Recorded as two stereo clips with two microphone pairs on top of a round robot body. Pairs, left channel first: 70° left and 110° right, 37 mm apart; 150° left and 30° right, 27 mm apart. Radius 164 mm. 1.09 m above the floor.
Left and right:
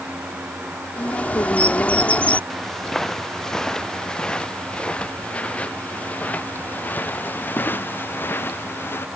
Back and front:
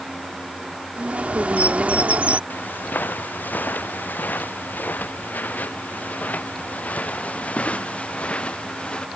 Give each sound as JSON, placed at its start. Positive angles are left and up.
{"t": 1.0, "sound": "a bird", "azimuth_deg": 10}
{"t": 2.5, "sound": "footsteps", "azimuth_deg": 150}